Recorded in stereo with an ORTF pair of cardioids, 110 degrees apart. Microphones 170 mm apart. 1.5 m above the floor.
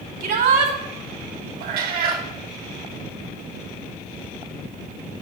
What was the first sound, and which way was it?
A shout, 65° right.